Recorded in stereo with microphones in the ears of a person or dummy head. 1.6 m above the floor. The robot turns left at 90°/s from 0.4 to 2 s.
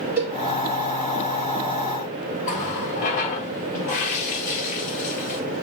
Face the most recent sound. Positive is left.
turn(degrees=40)  # may be behind; listen again after turning